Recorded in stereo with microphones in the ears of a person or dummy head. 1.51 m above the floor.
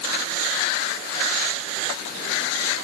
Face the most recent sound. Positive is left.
No sound to turn to.